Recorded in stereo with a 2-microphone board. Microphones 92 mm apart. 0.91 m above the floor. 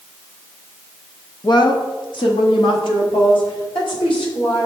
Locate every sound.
1.4 s a woman speaking: 55° left (ahead or behind), 1.0 m; by 4.7 s 75° left (ahead or behind), 3.5 m